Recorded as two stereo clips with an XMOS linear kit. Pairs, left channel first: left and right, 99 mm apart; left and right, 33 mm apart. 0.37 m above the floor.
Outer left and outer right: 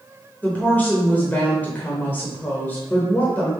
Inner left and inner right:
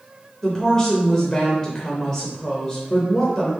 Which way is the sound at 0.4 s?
20° left (ahead or behind).